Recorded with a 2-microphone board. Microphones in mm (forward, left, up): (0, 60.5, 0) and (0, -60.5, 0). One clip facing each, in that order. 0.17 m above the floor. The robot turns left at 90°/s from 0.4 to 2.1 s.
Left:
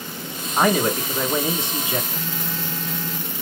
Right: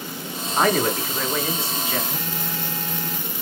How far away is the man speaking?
About 1.1 m.